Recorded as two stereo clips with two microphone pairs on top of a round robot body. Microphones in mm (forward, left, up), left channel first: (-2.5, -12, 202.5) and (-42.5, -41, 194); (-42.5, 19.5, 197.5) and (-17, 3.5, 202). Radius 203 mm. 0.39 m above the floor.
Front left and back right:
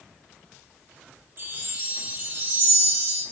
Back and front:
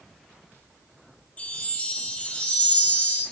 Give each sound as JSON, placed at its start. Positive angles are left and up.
{"t": 1.4, "sound": "a chime", "azimuth_deg": -175, "distance_m": 5.0}